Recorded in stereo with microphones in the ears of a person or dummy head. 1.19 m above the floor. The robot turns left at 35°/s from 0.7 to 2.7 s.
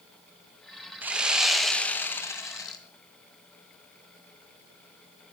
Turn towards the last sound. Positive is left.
turn(degrees=15)  # may be behind; listen again after turning